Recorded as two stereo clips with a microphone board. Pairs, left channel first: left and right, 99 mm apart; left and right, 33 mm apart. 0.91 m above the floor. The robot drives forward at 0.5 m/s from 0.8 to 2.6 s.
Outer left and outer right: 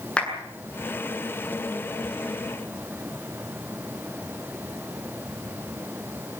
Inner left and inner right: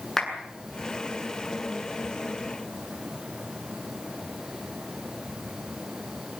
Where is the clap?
10° left (ahead or behind), 8 m.